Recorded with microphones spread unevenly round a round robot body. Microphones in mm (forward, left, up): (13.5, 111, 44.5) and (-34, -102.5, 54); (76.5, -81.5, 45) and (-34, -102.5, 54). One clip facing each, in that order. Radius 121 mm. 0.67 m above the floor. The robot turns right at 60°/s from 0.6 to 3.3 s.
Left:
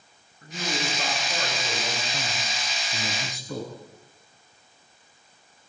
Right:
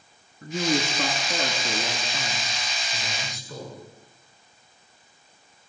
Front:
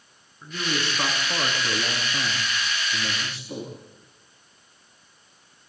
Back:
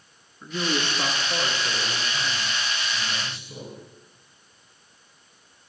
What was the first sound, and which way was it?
A man speaking, 85° right.